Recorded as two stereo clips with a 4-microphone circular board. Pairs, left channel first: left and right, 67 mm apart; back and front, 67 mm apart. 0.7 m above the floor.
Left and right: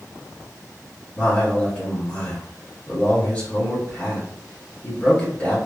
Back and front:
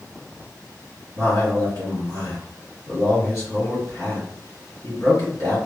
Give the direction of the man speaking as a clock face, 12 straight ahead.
7 o'clock.